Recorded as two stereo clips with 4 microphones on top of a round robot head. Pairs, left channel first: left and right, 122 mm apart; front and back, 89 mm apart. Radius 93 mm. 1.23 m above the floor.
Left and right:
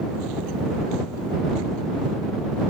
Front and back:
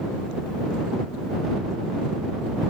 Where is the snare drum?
No snare drum in this recording.